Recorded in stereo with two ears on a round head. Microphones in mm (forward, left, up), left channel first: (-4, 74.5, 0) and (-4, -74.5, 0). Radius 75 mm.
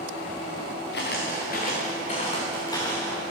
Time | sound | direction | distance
0.9 | footsteps | 65° left (ahead or behind) | 3 m